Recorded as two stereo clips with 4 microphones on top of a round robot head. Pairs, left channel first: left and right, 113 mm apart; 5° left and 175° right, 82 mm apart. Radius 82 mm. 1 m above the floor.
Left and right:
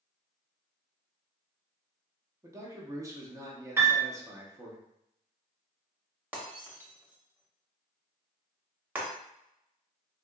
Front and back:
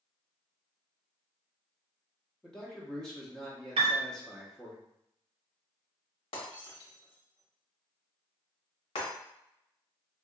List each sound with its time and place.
2.4 s a man speaking: 70° right, 0.8 m
3.8 s a piano: 165° right, 0.5 m
6.3 s breaking glass: 15° right, 0.9 m